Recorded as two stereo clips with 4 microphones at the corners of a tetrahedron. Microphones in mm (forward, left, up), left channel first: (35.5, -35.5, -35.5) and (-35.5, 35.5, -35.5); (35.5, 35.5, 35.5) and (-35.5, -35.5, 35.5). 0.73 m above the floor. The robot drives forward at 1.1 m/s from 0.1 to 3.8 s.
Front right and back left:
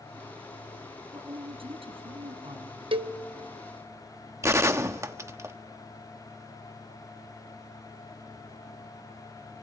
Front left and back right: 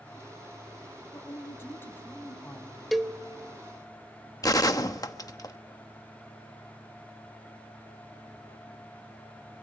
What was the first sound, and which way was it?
A woman speaking, 105° left.